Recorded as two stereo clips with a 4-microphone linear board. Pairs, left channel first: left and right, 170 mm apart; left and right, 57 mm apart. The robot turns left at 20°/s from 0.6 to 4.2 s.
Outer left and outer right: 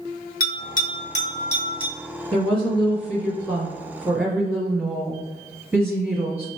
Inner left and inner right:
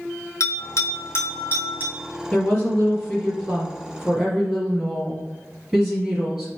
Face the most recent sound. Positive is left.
turn(degrees=-20)